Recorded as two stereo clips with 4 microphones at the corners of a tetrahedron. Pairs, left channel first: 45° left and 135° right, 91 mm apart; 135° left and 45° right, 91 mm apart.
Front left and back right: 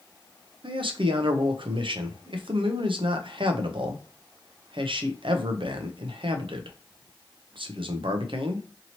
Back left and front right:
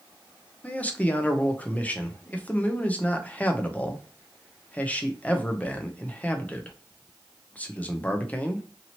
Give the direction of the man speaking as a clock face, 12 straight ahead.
5 o'clock.